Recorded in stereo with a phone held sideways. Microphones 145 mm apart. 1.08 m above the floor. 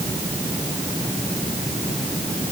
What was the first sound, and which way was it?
Only background noise.